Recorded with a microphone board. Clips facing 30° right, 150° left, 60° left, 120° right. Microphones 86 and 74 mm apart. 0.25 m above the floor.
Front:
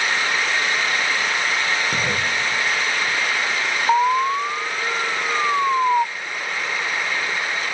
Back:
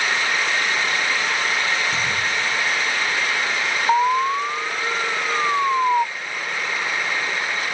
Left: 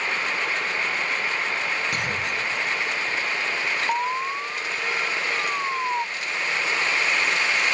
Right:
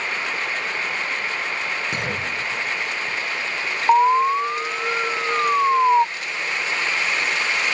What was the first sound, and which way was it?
A clunk, 55° right.